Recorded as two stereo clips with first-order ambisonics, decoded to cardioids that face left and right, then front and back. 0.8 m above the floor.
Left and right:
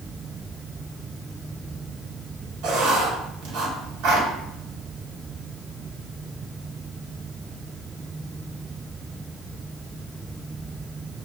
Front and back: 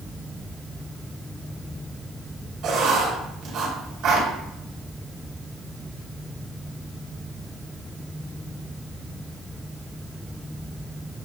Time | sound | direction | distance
2.6 | writing | 130° right | 1.5 m